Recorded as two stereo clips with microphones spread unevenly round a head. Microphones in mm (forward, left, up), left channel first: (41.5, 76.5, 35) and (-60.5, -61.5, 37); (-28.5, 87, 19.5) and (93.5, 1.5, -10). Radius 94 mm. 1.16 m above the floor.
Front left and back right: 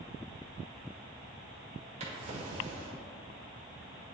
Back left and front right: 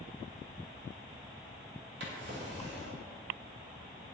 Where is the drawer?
70° right, 1.6 m.